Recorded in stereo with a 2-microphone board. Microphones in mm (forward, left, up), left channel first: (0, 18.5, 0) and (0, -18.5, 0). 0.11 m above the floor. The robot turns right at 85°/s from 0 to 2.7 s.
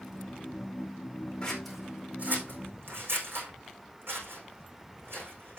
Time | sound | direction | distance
1.4 | scissors | 25° left (ahead or behind) | 4.5 m